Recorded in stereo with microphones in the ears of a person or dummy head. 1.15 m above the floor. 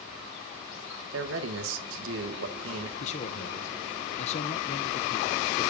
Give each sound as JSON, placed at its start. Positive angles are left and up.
{"t": 1.1, "sound": "a man speaking", "side_deg": -65, "distance_m": 1.6}
{"t": 3.0, "sound": "a man speaking", "side_deg": 40, "distance_m": 0.6}